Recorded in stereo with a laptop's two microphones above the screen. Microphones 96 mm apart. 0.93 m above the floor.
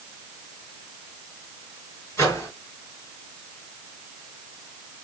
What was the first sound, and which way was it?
A microwave, 30° left (ahead or behind).